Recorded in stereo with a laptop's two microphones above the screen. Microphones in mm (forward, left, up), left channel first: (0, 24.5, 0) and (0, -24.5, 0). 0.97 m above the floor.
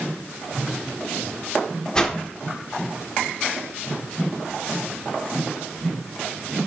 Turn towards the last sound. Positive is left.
turn(degrees=20)  # may be behind; listen again after turning